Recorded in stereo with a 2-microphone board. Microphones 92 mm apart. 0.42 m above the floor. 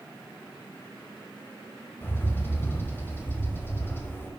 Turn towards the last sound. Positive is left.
turn(degrees=25)  # may be behind; listen again after turning